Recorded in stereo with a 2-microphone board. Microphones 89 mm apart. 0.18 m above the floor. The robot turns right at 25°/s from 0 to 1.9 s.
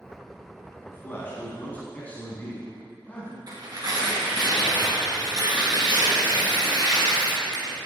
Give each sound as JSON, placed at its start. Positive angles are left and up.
{"t": 0.8, "sound": "a man speaking", "side_deg": 25, "distance_m": 1.7}
{"t": 3.5, "sound": "tearing paper", "side_deg": -50, "distance_m": 3.0}